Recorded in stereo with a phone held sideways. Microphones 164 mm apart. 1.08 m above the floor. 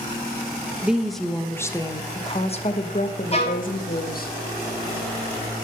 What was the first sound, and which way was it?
A woman speaking, 10° right (ahead or behind).